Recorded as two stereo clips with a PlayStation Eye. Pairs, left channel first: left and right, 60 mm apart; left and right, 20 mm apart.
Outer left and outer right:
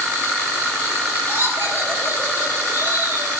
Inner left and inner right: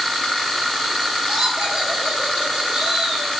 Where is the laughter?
45° right (ahead or behind), 3.5 m; by 3.3 s 35° right (ahead or behind), 4.5 m.